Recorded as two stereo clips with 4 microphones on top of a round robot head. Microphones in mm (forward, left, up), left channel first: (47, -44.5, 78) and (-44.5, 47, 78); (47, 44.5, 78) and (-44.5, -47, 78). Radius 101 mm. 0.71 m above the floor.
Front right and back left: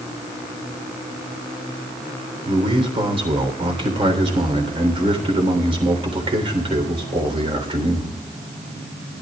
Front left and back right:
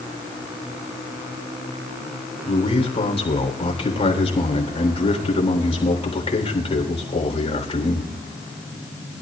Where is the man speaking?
90° left, 3.5 m.